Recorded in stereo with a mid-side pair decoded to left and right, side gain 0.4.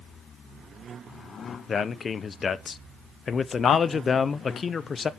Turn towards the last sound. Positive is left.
turn(degrees=45)